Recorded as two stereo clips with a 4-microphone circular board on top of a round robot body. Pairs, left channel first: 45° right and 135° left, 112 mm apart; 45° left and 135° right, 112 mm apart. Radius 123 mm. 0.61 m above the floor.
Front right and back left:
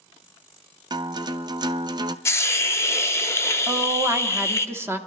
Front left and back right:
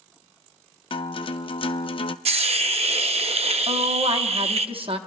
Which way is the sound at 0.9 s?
85° left.